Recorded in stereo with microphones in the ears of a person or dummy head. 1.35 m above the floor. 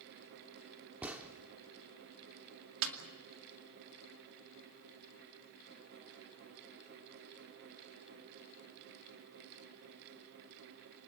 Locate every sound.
1.0 s a gunshot: 10° right (ahead or behind), 1.2 m
2.8 s a snare drum: 80° right, 2.5 m